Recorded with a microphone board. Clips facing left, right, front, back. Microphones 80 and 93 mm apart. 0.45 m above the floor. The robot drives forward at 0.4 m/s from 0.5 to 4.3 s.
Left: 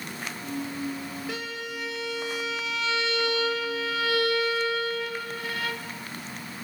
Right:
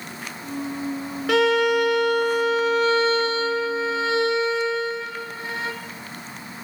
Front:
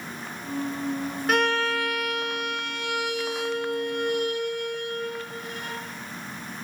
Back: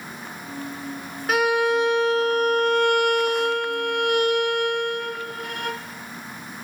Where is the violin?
95° right, 0.6 m; by 5.8 s 155° right, 1.4 m.